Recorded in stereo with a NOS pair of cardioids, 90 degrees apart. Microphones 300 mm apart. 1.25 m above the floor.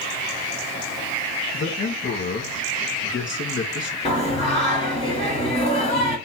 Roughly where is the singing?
Ahead.